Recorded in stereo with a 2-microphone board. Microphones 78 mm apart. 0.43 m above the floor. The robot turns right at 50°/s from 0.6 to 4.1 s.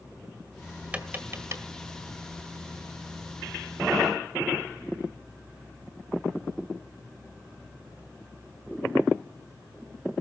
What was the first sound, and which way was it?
Tapping, 15° right (ahead or behind).